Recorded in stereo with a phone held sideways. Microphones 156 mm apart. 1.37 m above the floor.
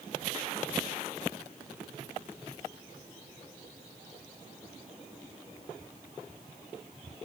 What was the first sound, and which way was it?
Only background noise.